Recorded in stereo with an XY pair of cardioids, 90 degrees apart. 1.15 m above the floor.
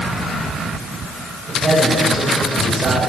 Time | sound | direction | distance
1.5 | a man speaking | 40° right | 6 m